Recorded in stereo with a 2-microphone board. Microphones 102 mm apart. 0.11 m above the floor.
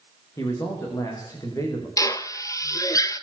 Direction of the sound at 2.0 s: 35° left (ahead or behind).